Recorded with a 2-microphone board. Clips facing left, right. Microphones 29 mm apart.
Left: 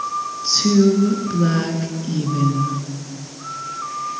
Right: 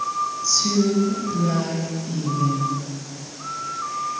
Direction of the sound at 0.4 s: 50° left (ahead or behind).